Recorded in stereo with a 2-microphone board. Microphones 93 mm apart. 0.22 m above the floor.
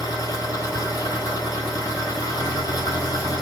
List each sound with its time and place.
0.0 s an engine running: 40° left (ahead or behind), 2.5 m